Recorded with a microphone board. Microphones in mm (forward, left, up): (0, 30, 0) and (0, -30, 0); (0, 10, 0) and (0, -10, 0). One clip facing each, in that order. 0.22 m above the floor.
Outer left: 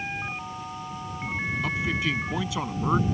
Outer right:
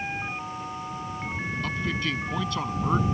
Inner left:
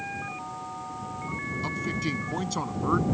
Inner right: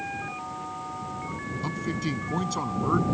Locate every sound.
1.6 s a man speaking: 5° left (ahead or behind)